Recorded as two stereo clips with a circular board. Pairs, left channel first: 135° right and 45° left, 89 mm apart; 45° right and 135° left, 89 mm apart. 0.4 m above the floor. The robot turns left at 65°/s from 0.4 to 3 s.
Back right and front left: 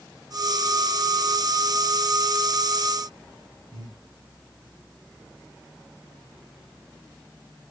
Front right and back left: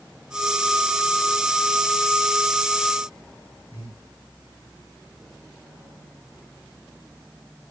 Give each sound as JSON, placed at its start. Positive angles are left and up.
{"t": 3.7, "sound": "breathing", "azimuth_deg": 75, "distance_m": 4.0}